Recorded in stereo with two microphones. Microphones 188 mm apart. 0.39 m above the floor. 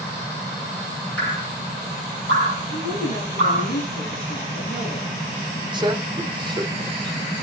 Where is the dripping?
85° left, 6 m.